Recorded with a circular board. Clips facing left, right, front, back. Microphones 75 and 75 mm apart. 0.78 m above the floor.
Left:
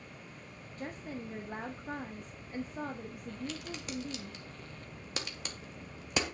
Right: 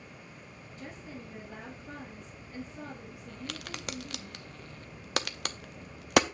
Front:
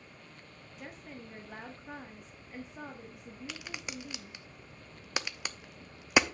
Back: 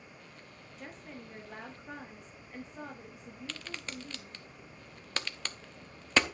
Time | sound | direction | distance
0.8 | a woman speaking | 85° left | 1.1 m
3.5 | a crack | 75° right | 0.7 m